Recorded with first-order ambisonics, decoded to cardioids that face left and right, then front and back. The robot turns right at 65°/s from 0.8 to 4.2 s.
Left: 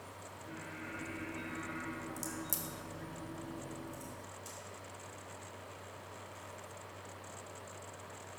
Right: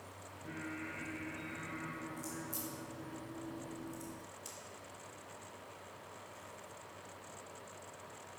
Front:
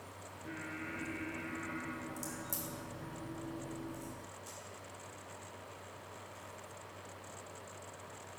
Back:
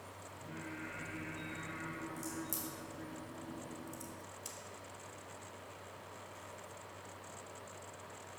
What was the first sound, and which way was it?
Singing, 15° right.